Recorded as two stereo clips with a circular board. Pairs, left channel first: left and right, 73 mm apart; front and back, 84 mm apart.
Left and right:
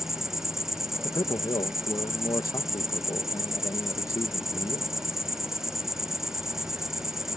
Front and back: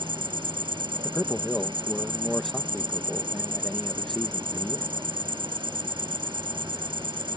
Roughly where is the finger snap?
No finger snap in this recording.